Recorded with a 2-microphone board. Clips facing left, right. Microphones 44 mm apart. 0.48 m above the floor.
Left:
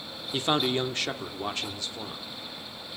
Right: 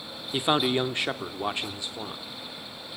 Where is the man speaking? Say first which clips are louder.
Right 2 dB; 10° right (ahead or behind), 0.8 m; by 2.2 s 15° right (ahead or behind), 1.0 m.